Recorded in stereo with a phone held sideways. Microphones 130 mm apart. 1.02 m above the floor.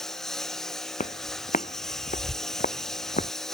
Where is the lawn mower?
5° left (ahead or behind).